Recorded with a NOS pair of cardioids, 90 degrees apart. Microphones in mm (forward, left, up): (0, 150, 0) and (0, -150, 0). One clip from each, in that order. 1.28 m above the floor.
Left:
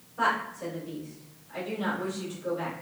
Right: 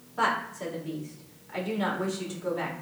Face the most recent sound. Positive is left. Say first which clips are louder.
# even
turn(degrees=-65)